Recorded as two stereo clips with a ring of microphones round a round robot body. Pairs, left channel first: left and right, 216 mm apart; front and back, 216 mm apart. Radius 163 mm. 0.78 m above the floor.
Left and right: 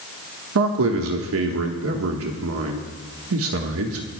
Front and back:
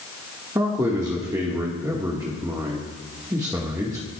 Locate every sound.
0.6 s a man speaking: 100° right, 1.5 m